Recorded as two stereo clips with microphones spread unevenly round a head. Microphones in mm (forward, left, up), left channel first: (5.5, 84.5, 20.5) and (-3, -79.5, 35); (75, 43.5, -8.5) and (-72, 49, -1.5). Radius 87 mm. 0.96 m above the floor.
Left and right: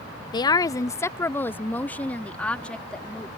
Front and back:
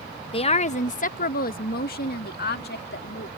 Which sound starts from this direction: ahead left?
A woman speaking, at 0.3 s.